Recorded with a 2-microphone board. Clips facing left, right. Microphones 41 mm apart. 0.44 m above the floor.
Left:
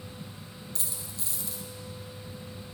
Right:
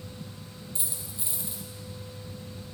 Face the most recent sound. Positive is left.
turn(degrees=-25)  # may be behind; listen again after turning